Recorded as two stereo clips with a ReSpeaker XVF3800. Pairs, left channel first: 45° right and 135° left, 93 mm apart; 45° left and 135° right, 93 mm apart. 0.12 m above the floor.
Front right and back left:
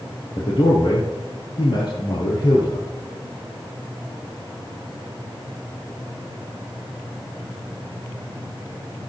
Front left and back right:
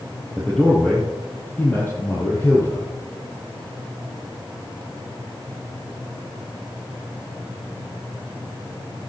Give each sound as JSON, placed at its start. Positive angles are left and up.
{"t": 0.4, "sound": "a man speaking", "azimuth_deg": -40, "distance_m": 3.0}